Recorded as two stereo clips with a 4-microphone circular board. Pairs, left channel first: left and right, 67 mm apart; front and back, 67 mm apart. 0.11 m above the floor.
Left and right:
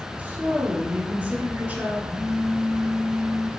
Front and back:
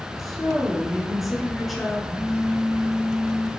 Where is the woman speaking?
95° right, 1.1 m.